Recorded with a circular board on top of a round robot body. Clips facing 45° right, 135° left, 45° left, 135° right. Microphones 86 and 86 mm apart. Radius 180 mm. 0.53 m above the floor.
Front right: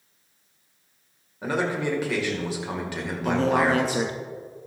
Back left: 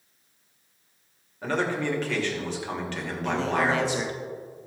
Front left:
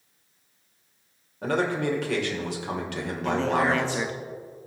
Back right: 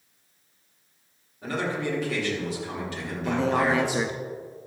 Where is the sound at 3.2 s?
60° right, 1.1 m.